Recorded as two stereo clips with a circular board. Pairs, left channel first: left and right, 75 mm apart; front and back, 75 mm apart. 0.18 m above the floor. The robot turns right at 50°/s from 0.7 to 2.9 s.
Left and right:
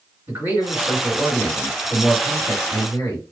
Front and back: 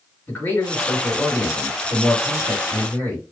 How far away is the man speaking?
About 2 m.